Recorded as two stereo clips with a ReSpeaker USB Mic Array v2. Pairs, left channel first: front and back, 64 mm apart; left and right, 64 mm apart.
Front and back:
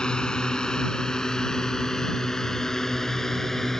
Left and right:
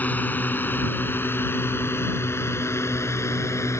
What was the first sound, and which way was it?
A drone, 65° left.